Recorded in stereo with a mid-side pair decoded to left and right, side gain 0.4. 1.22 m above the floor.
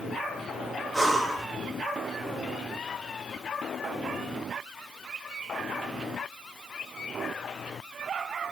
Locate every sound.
0.9 s breathing: 10° right, 0.7 m